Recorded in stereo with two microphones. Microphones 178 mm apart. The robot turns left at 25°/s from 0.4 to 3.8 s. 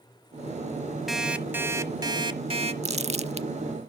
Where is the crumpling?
40° right (ahead or behind), 0.6 m.